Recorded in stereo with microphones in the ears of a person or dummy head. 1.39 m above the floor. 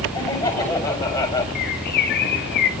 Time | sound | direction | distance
0.1 | laughter | 15° left (ahead or behind) | 9 m
1.6 | a bird | 55° left (ahead or behind) | 1.3 m